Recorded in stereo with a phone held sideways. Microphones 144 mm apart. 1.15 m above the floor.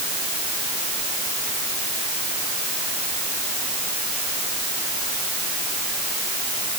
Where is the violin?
No violin in this recording.